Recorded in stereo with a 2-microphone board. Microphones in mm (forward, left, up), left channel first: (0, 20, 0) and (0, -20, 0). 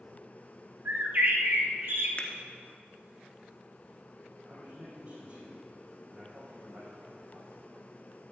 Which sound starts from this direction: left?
A finger snap, at 2.2 s.